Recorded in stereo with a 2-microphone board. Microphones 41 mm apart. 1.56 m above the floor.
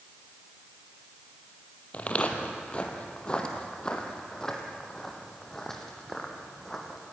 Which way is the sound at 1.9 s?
35° left (ahead or behind).